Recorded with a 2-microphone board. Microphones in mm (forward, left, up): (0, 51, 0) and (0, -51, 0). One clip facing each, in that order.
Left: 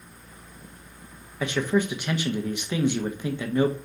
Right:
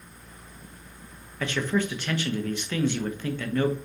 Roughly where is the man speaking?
Centre.